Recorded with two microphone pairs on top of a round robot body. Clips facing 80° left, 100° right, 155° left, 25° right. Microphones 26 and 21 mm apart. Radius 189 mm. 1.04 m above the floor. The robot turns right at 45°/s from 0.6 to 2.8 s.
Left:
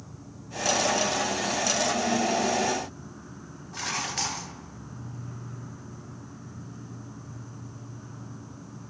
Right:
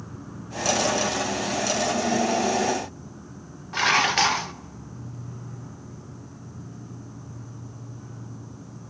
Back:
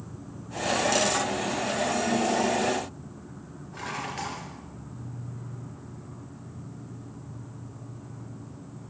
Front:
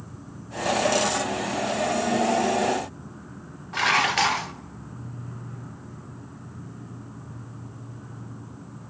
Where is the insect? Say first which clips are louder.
Right 6 dB, even; 95° right, 5.5 m; by 8.9 s 5° left, 5.5 m.